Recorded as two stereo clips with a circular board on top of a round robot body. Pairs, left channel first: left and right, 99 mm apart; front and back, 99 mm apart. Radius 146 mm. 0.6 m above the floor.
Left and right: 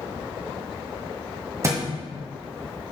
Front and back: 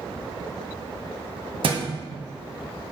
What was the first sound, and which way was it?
A thud, 150° right.